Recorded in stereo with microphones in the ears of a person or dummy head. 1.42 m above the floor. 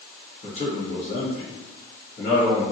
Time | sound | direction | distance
0.4 | a man speaking | 55° left (ahead or behind) | 1.4 m